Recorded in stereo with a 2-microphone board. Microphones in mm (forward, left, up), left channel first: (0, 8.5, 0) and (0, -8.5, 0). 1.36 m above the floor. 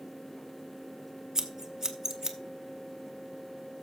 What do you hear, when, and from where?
1.4 s scissors: 35° right (ahead or behind), 1.0 m